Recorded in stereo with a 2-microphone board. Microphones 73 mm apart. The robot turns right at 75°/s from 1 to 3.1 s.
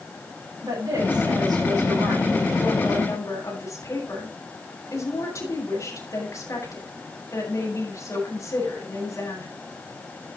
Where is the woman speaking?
115° right, 9.5 m; by 9.5 s 45° left, 9.5 m.